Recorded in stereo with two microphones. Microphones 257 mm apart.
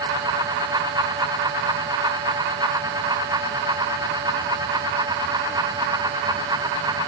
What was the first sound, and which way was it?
Only background noise.